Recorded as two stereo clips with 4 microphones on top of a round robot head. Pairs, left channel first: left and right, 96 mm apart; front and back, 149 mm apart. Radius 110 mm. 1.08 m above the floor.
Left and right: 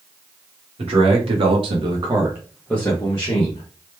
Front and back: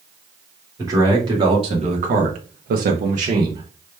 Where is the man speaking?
110° right, 1.2 m; by 3.7 s 125° left, 0.8 m.